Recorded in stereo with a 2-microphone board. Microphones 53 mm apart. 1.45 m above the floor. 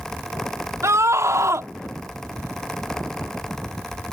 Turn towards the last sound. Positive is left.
turn(degrees=-80)